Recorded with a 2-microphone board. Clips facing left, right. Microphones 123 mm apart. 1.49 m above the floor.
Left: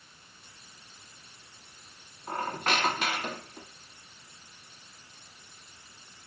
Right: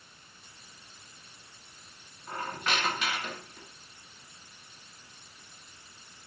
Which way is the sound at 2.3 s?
50° left (ahead or behind).